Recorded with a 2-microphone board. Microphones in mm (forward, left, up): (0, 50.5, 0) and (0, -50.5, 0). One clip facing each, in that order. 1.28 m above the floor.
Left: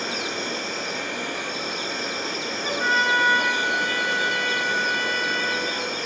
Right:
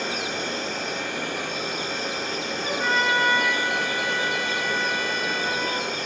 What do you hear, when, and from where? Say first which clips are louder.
0.0 s an insect: even; 55° right (ahead or behind), 1.8 m
2.6 s a trumpet: left 1 dB; 5° right (ahead or behind), 1.9 m